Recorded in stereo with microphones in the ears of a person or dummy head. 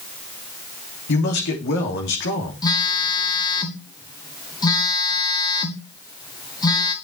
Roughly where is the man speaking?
Left.